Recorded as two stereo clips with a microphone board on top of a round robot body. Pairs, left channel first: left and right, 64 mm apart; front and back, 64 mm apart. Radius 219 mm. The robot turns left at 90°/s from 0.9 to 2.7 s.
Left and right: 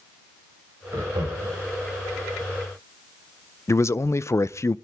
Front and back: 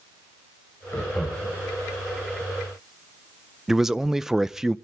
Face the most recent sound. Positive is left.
turn(degrees=100)